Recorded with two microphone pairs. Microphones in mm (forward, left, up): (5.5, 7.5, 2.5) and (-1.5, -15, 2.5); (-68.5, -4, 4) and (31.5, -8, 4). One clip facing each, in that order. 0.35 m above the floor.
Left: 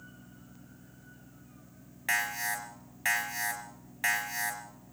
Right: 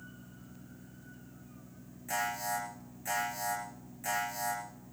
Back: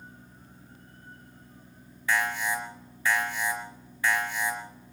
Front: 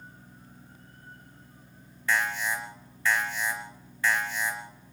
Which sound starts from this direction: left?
An alarm, at 2.1 s.